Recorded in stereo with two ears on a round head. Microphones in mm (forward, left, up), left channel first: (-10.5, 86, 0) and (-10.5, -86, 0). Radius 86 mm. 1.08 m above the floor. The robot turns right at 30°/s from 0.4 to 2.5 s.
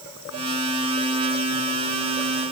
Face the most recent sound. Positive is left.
No sound to turn to.